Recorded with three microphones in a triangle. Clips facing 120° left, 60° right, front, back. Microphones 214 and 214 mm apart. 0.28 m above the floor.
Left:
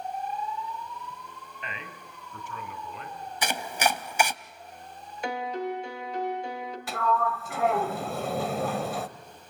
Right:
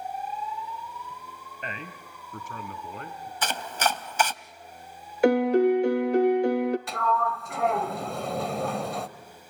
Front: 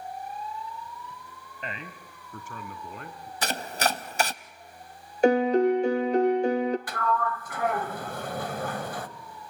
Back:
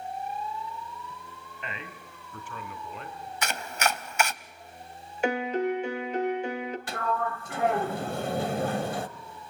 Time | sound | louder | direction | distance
1.6 | a man speaking | right 4 dB, front 2 dB | 35° right | 1.8 m
3.4 | chopping | left 1 dB, front 2 dB | 45° left | 0.5 m
5.2 | a piano | right 13 dB, front 7 dB | 50° right | 0.8 m
6.9 | a sliding door | even, front 2 dB | 155° right | 0.8 m